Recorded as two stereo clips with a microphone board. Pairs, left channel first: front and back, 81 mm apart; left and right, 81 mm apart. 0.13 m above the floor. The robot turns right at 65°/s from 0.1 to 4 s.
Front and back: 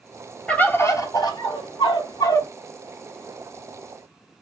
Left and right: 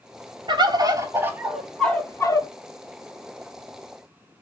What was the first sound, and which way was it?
A bird, 75° right.